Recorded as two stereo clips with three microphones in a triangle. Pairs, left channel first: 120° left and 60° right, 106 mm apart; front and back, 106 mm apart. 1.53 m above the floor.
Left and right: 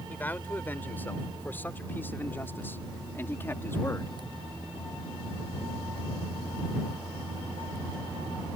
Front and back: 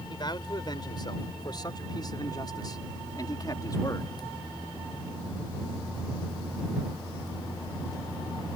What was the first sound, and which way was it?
A man speaking, 45° left.